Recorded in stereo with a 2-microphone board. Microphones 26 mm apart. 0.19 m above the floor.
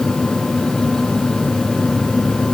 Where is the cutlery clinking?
No cutlery clinking in this recording.